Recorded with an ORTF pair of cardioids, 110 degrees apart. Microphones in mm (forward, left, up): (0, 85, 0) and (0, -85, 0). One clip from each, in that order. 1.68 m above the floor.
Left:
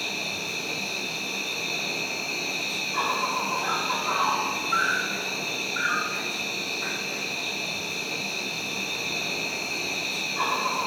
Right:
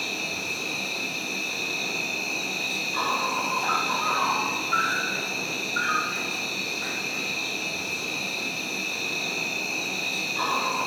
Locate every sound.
0.0 s an insect: 5° right, 0.8 m